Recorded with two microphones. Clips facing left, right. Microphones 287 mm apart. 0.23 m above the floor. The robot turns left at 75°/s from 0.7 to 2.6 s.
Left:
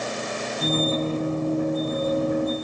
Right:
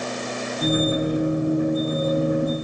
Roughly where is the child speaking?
I don't hear a child speaking.